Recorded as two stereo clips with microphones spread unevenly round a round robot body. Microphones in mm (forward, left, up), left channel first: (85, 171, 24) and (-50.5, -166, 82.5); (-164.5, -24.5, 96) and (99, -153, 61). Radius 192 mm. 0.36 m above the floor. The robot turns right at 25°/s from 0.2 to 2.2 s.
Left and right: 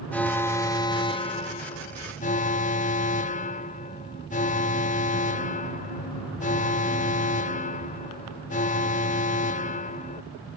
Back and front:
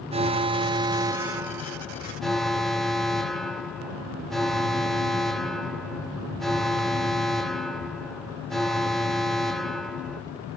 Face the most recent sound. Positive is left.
turn(degrees=55)